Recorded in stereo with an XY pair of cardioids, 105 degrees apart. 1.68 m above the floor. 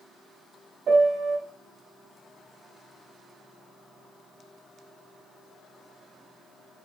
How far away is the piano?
About 0.7 m.